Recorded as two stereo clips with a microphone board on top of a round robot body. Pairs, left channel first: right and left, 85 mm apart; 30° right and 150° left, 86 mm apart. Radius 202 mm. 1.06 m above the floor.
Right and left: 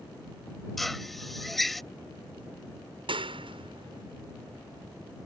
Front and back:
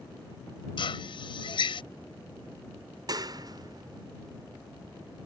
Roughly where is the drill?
Ahead.